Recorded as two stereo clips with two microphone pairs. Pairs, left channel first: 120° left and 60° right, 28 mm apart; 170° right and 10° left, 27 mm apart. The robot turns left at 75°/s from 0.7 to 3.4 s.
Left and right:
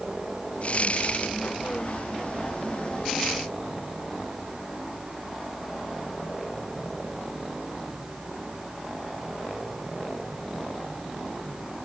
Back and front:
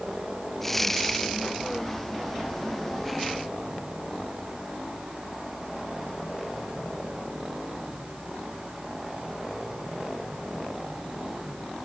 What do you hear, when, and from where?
Only background noise.